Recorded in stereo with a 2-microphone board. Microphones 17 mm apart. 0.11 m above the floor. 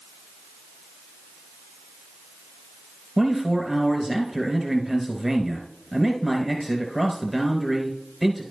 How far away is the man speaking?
About 1.4 m.